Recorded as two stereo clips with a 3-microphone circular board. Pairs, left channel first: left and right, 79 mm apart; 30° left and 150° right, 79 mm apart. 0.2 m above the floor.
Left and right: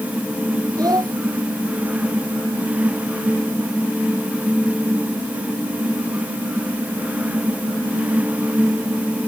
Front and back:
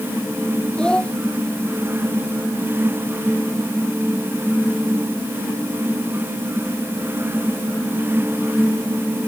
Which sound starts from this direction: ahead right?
A child speaking, at 0.8 s.